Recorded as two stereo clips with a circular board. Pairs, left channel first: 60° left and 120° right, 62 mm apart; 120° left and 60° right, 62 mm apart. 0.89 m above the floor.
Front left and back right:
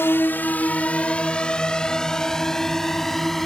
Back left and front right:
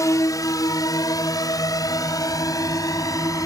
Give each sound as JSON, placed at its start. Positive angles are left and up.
{"t": 0.0, "sound": "a drone", "azimuth_deg": 105}